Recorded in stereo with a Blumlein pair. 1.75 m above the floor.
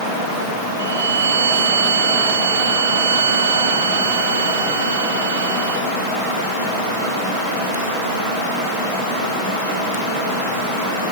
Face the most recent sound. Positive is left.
turn(degrees=-70)